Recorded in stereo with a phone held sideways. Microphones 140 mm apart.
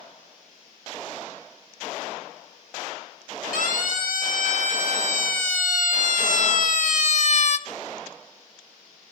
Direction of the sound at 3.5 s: 70° left (ahead or behind).